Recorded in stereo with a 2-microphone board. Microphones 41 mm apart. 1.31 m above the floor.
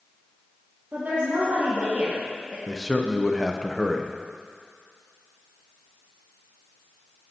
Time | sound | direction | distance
0.9 | a woman speaking | 45° right (ahead or behind) | 1.8 m
2.7 | a man speaking | 5° left (ahead or behind) | 0.6 m